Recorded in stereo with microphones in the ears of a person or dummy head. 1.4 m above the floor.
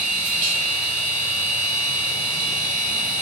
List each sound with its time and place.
0.0 s a machine running: 35° right (ahead or behind), 1.5 m